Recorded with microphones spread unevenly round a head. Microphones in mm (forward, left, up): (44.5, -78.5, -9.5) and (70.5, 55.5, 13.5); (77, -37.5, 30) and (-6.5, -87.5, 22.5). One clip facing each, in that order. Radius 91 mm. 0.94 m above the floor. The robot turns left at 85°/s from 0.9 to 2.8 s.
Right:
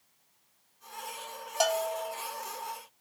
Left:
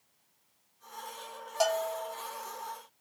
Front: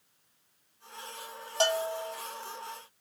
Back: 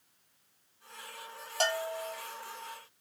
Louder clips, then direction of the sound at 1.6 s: Even, front 3 dB; 40° right.